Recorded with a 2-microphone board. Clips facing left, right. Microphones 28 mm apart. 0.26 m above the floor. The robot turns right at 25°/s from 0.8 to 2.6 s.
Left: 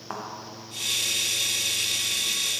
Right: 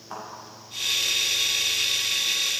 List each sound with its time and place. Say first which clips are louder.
0.1 s a thud: left 2 dB; 85° left, 4.5 m